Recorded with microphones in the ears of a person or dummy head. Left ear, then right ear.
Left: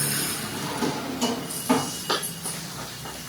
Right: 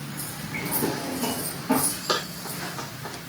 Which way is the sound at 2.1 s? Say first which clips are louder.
Right 1 dB; 15° right (ahead or behind).